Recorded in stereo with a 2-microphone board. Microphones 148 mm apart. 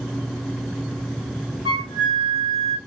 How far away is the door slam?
No door slam in this recording.